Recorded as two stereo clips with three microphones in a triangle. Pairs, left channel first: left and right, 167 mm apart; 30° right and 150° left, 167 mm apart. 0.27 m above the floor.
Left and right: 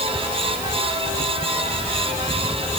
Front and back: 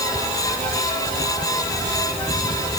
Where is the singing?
No singing in this recording.